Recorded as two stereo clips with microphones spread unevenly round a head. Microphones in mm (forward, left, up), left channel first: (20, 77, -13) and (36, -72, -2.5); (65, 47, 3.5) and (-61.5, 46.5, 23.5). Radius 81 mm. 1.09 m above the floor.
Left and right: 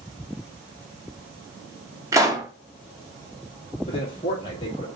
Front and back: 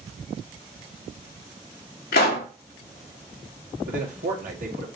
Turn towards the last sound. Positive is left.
turn(degrees=160)